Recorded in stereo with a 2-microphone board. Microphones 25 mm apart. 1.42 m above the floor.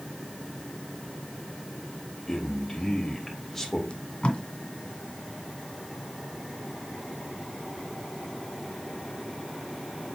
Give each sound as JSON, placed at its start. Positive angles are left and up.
{"t": 2.3, "sound": "a man speaking", "side_deg": 10, "distance_m": 2.5}
{"t": 3.9, "sound": "tape being pulled", "side_deg": 45, "distance_m": 1.9}